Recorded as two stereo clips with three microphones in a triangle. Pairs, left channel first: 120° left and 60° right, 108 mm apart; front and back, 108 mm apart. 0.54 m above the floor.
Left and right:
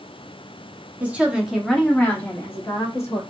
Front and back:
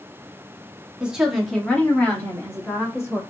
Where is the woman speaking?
115° right, 1.1 m; by 3.2 s 60° left, 1.7 m.